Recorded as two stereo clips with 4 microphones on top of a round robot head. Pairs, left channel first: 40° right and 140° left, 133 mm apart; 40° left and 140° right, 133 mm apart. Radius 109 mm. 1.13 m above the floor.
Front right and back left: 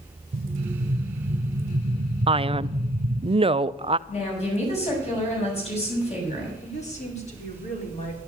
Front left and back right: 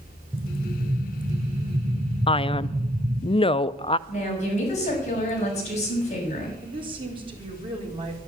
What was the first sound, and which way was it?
An explosion, 150° left.